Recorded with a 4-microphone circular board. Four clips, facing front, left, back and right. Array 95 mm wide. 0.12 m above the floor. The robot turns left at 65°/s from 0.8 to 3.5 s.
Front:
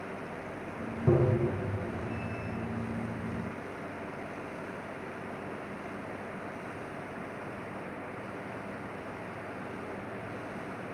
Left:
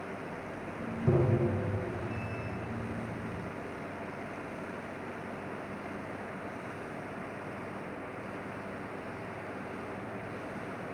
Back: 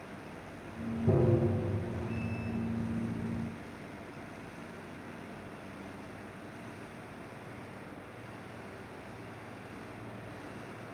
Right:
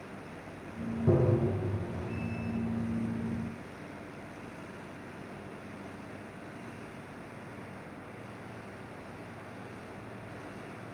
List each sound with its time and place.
1.1 s tapping: 10° right, 1.5 m; by 1.5 s 35° right, 1.5 m